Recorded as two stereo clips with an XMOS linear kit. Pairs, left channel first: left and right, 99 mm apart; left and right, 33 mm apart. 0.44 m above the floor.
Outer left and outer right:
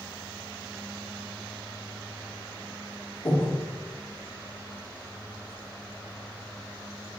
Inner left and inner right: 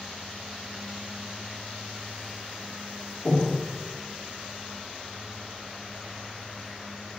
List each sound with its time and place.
3.2 s breathing: 45° left (ahead or behind), 2.5 m